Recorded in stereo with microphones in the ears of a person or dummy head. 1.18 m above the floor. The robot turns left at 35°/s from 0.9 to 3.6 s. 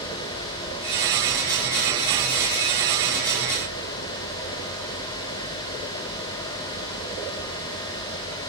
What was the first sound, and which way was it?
Only background noise.